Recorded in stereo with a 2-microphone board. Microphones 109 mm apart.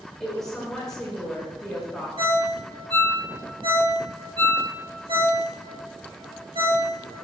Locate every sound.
0.2 s a woman speaking: 10° left (ahead or behind), 3 m
2.2 s a ringtone: 50° right (ahead or behind), 1.7 m